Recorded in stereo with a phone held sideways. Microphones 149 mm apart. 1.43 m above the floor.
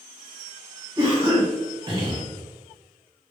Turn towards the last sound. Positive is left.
turn(degrees=-30)  # may be behind; listen again after turning